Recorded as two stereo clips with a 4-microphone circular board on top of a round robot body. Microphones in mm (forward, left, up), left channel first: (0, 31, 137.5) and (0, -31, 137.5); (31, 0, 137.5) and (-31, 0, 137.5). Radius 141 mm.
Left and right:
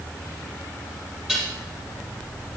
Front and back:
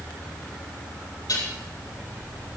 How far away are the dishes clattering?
About 8 m.